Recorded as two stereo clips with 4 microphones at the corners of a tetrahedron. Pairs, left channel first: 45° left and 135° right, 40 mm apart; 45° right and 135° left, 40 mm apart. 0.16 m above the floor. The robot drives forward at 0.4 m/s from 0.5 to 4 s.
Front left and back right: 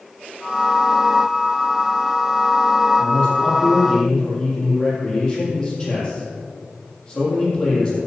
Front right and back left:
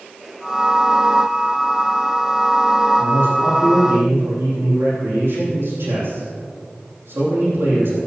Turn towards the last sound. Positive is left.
turn(degrees=120)